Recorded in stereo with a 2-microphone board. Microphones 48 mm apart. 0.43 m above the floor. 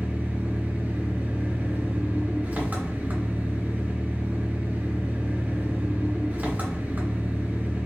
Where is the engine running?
35° right (ahead or behind), 1.4 m.